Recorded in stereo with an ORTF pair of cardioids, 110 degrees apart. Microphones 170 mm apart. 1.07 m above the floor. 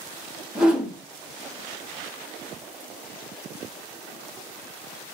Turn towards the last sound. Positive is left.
turn(degrees=-5)